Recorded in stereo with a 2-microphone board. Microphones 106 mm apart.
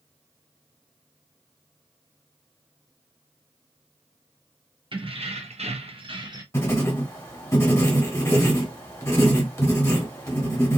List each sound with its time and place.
4.9 s keys jangling: 55° right (ahead or behind), 0.8 m; by 6.4 s 40° right (ahead or behind), 0.8 m
6.5 s writing: 25° left (ahead or behind), 1.2 m